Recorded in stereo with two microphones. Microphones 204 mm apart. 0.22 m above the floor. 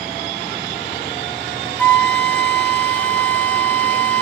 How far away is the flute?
About 0.9 m.